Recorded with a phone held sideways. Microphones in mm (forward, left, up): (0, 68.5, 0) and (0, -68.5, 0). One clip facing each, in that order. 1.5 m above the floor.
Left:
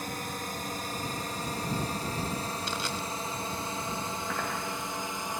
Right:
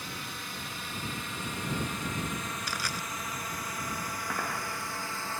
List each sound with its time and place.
0.0 s a drone: 45° left (ahead or behind); by 5.4 s 15° left (ahead or behind)
2.7 s crushing: 25° left (ahead or behind)